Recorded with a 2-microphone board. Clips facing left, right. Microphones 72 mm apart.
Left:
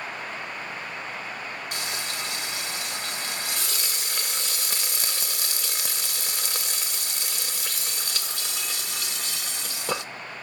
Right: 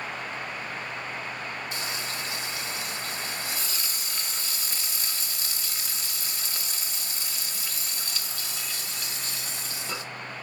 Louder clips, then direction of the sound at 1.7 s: Left 1 dB; 75° left (ahead or behind).